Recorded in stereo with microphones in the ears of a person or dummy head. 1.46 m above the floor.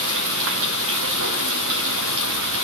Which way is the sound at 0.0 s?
70° right (ahead or behind).